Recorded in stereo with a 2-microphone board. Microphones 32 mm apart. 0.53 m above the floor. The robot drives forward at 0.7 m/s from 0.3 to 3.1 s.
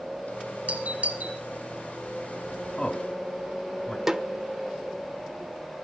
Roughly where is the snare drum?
Centre.